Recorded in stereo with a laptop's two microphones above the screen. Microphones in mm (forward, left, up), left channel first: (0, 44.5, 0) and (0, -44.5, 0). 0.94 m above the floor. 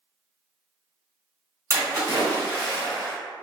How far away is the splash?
About 1.2 m.